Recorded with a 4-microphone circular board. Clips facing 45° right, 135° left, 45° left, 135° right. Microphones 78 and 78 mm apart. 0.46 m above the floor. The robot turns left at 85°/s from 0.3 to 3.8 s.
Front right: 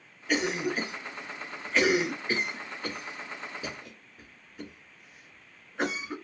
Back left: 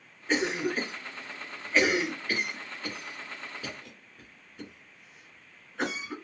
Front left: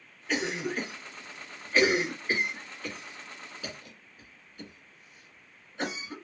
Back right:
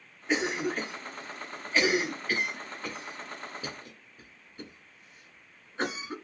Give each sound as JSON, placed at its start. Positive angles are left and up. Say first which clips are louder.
{"t": 0.3, "sound": "a cough", "louder": "even, back right 2 dB", "azimuth_deg": 170, "distance_m": 1.5}